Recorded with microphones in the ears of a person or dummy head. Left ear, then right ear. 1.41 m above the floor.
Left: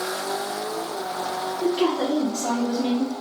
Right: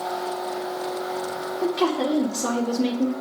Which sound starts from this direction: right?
A woman speaking, at 1.6 s.